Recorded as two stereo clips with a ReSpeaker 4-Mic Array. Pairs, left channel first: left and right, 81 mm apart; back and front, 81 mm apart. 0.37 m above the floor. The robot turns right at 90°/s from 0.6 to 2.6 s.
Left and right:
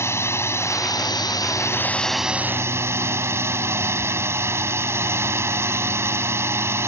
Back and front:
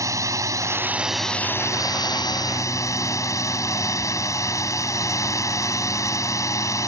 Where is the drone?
40° left; by 6.9 s 140° right.